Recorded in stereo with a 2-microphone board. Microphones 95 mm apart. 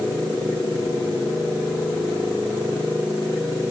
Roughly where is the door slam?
No door slam in this recording.